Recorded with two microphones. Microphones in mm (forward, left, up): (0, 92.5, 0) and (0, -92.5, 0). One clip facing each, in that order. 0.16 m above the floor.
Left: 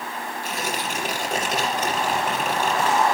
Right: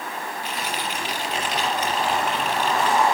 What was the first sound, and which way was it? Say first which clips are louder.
Tearing paper: left 3 dB; 45° left (ahead or behind).